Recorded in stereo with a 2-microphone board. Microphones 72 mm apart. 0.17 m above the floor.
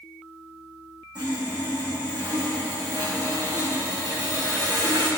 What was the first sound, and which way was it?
Sawing, 80° right.